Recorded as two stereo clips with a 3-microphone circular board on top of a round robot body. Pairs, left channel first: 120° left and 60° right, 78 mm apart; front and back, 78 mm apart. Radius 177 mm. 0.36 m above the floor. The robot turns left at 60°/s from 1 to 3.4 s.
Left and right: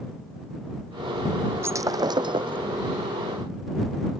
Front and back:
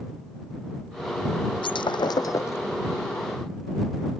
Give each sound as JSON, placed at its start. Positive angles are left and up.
{"t": 1.6, "sound": "breaking glass", "azimuth_deg": 0}